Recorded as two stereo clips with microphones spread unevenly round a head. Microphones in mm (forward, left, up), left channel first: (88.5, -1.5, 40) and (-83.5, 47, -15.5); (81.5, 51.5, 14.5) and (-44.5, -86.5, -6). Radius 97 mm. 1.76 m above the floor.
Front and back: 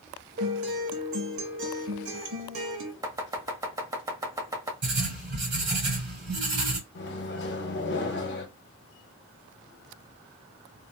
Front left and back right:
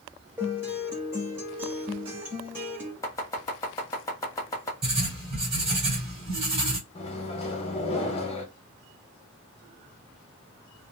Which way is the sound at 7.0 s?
5° right.